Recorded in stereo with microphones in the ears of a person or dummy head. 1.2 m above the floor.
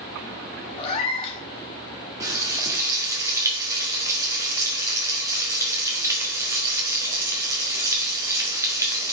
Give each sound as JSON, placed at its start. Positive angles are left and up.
{"t": 0.8, "sound": "a cat meowing", "side_deg": 35, "distance_m": 1.0}
{"t": 2.2, "sound": "frying", "side_deg": -20, "distance_m": 1.5}